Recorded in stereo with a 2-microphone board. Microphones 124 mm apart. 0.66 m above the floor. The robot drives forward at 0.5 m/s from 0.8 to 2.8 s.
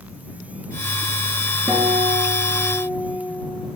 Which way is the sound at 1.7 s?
35° right (ahead or behind).